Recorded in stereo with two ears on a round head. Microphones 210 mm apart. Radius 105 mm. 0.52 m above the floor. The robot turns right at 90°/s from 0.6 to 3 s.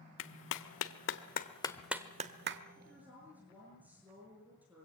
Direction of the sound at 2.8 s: 15° left (ahead or behind).